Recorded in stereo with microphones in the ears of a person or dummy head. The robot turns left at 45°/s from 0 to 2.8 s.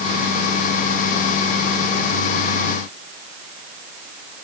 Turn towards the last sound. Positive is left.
No sound to turn to.